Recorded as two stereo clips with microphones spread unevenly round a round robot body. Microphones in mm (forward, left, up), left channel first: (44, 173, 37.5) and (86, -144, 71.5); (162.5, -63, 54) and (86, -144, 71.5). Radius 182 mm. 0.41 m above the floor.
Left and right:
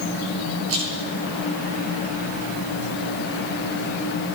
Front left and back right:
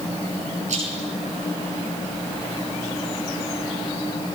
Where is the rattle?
140° right, 9.5 m.